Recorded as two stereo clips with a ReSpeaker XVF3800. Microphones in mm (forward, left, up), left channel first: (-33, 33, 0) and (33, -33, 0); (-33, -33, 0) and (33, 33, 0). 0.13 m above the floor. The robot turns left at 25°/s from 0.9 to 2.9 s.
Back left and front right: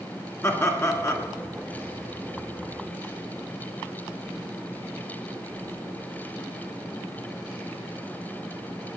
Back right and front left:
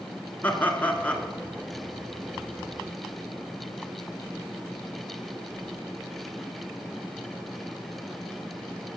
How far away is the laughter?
About 1.2 m.